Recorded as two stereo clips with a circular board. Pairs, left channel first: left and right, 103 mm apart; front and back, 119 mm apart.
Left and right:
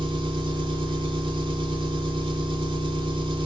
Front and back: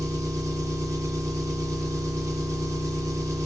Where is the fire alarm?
No fire alarm in this recording.